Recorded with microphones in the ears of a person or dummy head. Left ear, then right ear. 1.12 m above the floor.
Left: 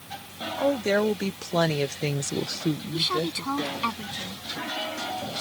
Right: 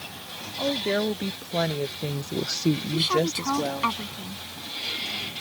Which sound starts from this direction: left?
A woman speaking, at 0.6 s.